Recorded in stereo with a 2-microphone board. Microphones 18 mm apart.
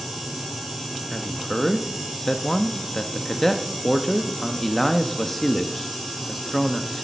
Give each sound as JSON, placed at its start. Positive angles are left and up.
{"t": 1.1, "sound": "a man speaking", "side_deg": 15, "distance_m": 0.8}